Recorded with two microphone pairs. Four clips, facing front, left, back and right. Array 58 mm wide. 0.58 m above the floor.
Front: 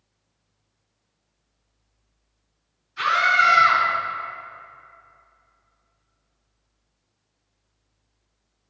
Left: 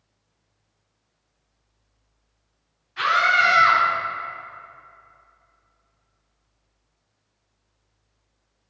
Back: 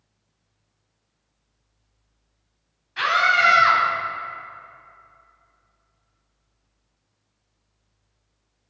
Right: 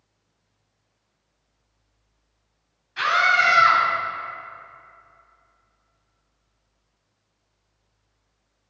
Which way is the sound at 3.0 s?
160° right.